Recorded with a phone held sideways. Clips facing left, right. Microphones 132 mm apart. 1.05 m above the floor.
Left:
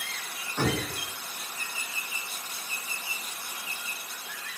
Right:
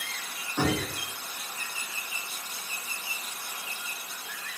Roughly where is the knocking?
Centre.